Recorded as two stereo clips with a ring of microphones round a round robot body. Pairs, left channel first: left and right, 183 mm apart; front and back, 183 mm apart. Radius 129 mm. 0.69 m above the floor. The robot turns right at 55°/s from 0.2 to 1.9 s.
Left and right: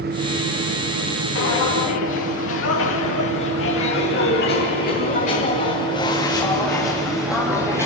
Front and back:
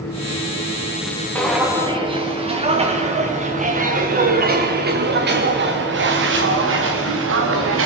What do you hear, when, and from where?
1.4 s footsteps: 80° left, 5 m; by 7.9 s 170° right, 3.5 m